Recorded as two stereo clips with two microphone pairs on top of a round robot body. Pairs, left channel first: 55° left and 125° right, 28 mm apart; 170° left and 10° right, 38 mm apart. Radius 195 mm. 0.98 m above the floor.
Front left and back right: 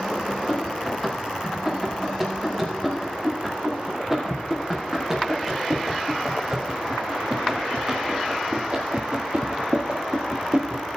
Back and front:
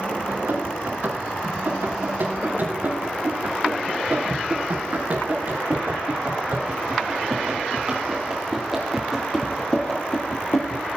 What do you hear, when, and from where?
0.3 s running footsteps: 35° right, 6 m; by 10.9 s 160° right, 1.5 m